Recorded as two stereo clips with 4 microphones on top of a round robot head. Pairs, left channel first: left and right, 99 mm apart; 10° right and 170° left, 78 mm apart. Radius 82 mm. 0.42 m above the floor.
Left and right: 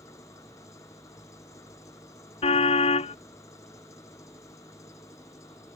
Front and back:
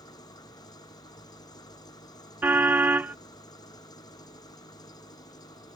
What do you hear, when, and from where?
0.0 s an engine running: 25° left
2.4 s a car horn: 105° left